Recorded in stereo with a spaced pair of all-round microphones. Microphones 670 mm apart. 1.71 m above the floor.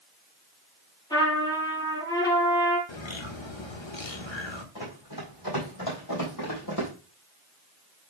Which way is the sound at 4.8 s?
35° left (ahead or behind).